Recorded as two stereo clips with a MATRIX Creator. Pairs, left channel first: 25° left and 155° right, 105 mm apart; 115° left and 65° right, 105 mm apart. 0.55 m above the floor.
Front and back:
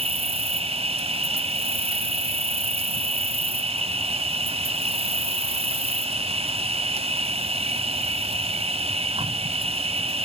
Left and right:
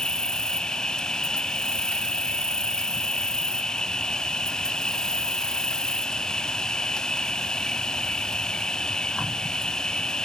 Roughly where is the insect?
Behind.